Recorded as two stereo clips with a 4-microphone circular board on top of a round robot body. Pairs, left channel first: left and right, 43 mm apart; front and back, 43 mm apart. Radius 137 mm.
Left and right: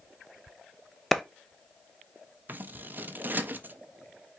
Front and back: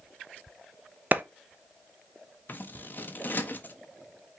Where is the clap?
175° left, 0.7 m.